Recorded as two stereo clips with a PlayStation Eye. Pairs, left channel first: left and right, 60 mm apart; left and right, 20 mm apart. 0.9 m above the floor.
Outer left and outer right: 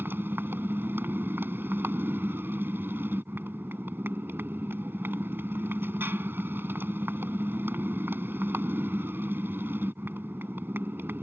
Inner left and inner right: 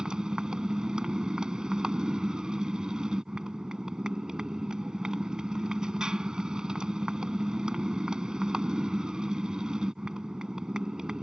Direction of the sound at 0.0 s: 35° right (ahead or behind).